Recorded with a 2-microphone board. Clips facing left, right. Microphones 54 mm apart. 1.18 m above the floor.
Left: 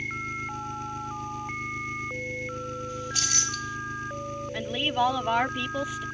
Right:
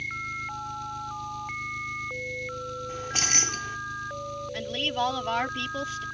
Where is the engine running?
40° left (ahead or behind).